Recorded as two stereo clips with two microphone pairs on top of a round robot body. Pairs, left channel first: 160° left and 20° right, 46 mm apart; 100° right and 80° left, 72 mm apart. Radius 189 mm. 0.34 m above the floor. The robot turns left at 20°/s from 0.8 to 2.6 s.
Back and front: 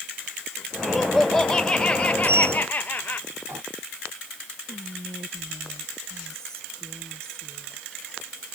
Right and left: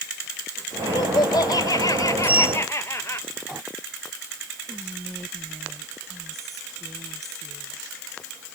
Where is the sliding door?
15° left; by 3.6 s 5° left.